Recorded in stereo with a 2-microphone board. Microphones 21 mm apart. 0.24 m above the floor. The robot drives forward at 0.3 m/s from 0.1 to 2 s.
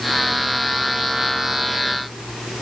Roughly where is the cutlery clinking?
No cutlery clinking in this recording.